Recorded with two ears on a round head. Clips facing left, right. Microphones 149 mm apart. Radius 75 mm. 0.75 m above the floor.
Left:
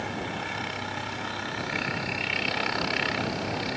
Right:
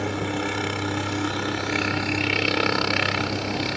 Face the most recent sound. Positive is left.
turn(degrees=-60)  # may be behind; listen again after turning